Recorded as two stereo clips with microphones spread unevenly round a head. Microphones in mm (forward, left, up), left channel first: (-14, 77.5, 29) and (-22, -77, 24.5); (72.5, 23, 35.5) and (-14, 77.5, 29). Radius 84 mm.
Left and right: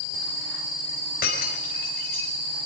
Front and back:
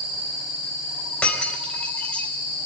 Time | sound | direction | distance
1.2 | breaking glass | 45° left | 4 m